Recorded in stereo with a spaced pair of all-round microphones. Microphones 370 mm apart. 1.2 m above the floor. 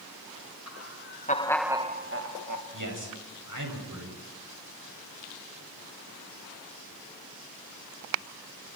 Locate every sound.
0.7 s laughter: 45° left (ahead or behind), 1.8 m; by 2.6 s 55° right (ahead or behind), 1.7 m
2.7 s a man speaking: 55° right (ahead or behind), 7.5 m